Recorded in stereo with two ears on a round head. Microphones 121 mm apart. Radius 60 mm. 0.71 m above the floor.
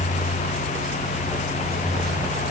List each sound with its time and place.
Only background noise.